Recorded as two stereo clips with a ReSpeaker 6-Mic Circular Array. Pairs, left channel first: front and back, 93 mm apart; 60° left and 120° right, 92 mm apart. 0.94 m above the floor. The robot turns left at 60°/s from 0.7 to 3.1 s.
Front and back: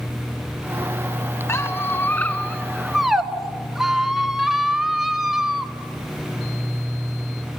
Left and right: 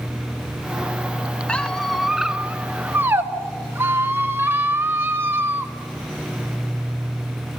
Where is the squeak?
5° right, 0.9 m; by 5.7 s 100° right, 0.9 m.